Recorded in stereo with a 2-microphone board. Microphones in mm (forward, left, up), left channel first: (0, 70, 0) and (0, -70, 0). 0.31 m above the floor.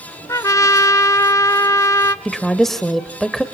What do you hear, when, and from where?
0.3 s a trumpet: 25° left (ahead or behind), 0.6 m
2.2 s a woman speaking: centre (ahead or behind), 0.9 m